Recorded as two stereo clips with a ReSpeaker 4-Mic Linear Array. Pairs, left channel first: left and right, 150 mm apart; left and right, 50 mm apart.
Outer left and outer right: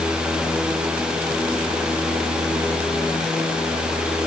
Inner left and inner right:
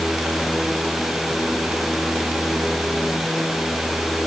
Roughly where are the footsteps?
No footsteps in this recording.